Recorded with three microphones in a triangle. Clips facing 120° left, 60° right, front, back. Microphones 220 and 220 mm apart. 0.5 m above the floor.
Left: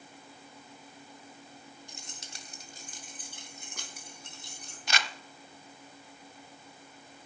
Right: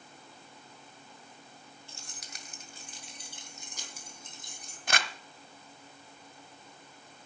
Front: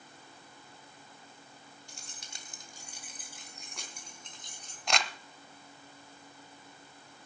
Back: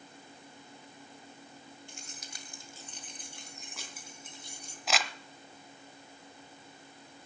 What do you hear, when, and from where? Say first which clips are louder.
1.9 s keys jangling: left 2 dB, back 3 dB; 45° left, 1.9 m; by 4.8 s 100° left, 4.5 m
4.9 s crumpling: right 2 dB, even; 95° right, 0.8 m